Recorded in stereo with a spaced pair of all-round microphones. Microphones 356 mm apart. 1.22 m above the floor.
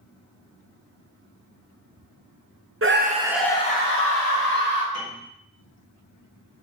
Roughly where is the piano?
Right.